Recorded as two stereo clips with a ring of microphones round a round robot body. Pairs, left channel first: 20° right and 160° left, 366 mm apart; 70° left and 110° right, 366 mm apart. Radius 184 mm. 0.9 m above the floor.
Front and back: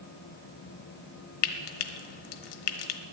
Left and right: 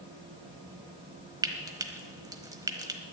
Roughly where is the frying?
Ahead right.